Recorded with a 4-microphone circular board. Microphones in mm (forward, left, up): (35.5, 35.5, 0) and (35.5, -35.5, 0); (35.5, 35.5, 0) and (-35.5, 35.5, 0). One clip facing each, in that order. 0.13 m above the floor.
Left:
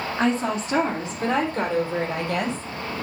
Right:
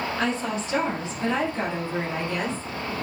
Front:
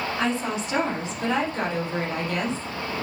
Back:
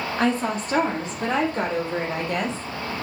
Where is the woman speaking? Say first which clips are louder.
Left 7 dB, back 5 dB; 145° left, 3.5 m; by 2.6 s 120° left, 4.5 m.